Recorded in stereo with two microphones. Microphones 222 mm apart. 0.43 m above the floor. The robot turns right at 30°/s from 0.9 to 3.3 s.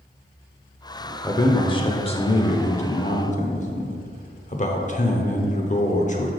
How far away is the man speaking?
About 0.8 m.